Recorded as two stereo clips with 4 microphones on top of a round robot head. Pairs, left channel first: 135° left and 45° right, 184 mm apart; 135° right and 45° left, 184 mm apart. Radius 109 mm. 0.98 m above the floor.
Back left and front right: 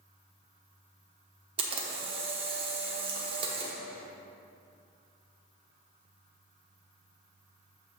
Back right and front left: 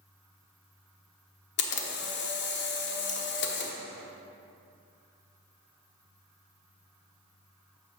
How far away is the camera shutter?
About 1.0 m.